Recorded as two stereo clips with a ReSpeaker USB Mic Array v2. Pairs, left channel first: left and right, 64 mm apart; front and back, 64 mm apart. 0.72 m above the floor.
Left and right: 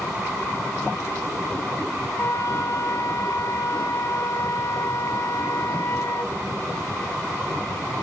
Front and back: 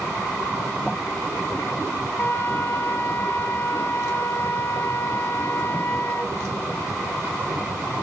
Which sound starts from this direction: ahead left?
A flute, at 2.2 s.